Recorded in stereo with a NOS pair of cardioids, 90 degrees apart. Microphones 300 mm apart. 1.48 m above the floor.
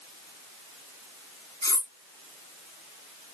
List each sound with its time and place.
1.6 s cutlery clinking: 10° left, 2 m